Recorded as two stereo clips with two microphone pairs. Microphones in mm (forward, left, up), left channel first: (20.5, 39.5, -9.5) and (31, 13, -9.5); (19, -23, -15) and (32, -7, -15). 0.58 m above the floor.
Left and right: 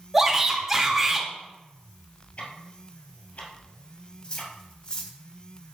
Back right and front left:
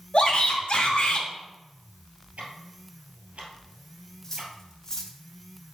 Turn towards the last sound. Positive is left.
turn(degrees=165)